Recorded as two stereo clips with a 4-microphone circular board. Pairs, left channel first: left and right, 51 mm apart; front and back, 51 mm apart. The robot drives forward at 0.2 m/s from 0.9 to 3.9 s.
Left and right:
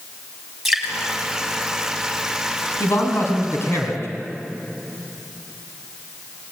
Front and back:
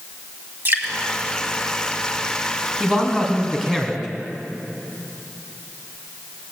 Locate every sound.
0.7 s dripping: 170° right, 2.5 m
2.8 s a man speaking: 100° left, 3 m; by 4.1 s 105° left, 3 m